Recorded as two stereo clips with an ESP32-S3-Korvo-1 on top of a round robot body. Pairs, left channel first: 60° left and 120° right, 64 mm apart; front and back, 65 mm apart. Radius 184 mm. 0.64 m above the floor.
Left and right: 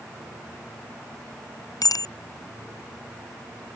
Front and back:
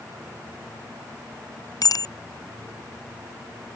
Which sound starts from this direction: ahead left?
A bicycle bell, at 1.8 s.